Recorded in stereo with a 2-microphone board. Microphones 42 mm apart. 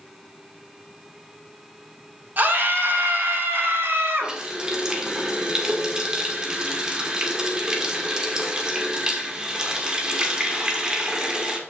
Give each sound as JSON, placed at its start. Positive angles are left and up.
{"t": 2.4, "sound": "a scream", "side_deg": -45, "distance_m": 2.5}
{"t": 4.2, "sound": "a running tap", "side_deg": -20, "distance_m": 1.7}